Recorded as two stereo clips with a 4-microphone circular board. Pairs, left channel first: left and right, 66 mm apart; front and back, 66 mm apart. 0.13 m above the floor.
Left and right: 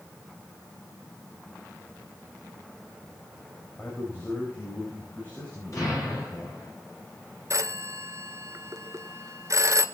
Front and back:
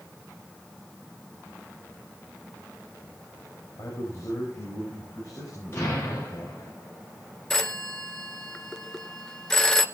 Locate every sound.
3.8 s a man speaking: 30° left, 7.5 m; by 6.6 s 35° left, 9 m
5.7 s an explosion: 55° left, 9.5 m
7.5 s a phone ringing: 80° right, 1.0 m